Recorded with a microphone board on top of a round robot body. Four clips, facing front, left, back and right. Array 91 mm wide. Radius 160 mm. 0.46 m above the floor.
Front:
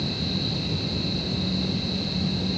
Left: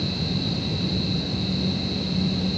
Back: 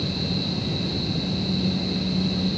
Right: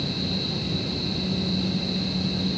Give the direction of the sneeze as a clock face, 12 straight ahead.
No sneeze in this recording.